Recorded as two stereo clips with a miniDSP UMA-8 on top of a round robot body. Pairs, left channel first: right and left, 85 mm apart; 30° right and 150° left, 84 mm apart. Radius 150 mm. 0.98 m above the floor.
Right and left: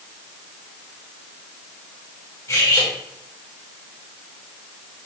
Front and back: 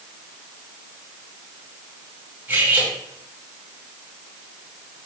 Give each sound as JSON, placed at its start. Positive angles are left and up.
{"t": 2.5, "sound": "cutlery clinking", "azimuth_deg": -140, "distance_m": 6.0}